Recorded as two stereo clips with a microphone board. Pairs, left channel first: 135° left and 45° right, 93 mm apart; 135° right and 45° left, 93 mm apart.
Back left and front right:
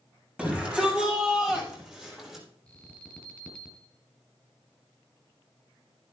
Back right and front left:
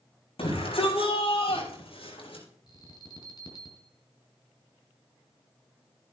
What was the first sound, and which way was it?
A shout, 120° right.